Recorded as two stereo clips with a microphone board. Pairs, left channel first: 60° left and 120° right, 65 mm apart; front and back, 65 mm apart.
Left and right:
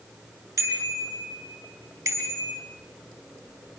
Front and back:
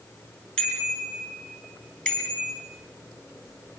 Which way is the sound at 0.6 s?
70° right.